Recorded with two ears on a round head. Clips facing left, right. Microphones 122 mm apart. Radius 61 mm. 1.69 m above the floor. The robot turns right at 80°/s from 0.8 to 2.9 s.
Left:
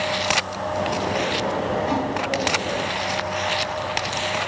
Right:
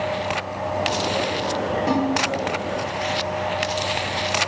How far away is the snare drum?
About 4.5 m.